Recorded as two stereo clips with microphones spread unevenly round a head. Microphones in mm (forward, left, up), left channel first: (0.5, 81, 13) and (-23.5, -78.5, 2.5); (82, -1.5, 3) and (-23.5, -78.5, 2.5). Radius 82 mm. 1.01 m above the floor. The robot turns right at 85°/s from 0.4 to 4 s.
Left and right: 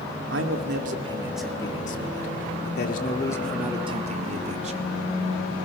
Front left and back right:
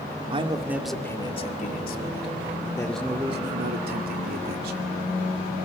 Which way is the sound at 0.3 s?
95° right.